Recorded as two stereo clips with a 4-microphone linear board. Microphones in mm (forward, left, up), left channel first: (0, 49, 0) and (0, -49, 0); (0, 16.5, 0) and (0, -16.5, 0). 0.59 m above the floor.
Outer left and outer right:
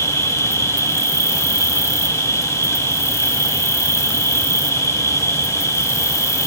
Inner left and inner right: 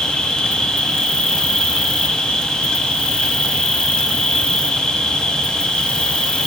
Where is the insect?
30° left (ahead or behind), 0.7 m.